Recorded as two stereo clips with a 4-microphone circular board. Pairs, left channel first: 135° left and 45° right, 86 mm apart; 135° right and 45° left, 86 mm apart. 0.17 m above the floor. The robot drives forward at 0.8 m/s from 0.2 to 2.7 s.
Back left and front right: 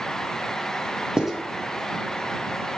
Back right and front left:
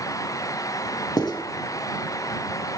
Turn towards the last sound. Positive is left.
turn(degrees=-165)